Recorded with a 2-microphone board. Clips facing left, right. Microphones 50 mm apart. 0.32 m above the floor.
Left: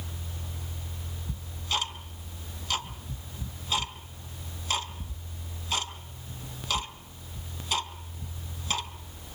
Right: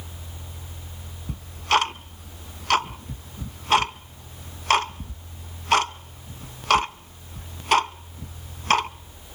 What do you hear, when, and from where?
1.3 s ticking: 70° right (ahead or behind), 0.6 m